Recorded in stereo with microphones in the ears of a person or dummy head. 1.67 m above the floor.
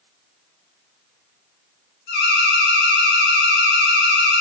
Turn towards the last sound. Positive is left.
turn(degrees=55)  # may be behind; listen again after turning